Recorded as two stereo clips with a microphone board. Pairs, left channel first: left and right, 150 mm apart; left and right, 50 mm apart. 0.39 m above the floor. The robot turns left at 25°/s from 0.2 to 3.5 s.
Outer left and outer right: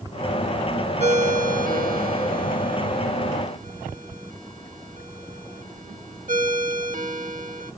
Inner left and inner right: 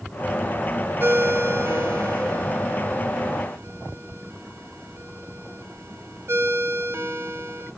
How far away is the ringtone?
About 0.8 m.